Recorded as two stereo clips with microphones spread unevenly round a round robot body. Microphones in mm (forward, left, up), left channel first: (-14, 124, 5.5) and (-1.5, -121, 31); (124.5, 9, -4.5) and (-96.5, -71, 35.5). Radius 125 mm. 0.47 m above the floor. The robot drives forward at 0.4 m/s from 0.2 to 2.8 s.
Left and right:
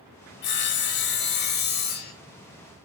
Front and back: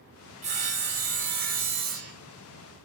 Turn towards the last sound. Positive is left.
turn(degrees=145)